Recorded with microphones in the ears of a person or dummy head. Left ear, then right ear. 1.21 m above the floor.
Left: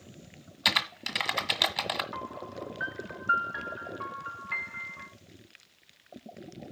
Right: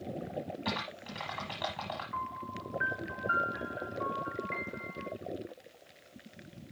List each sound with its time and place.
0.7 s typing on a keyboard: 40° left (ahead or behind), 1.2 m
2.1 s a piano: 30° left (ahead or behind), 1.8 m